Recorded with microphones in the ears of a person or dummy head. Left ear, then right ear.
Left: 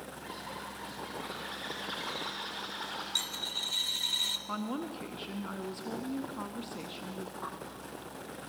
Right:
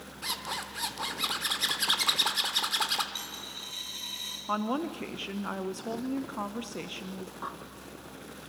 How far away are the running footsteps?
I don't hear running footsteps.